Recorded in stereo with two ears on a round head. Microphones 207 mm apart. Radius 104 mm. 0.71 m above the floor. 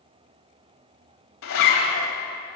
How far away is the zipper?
About 1.8 m.